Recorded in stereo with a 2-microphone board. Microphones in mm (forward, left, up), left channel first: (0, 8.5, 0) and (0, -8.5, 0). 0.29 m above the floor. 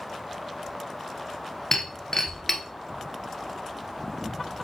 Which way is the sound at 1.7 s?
20° left (ahead or behind).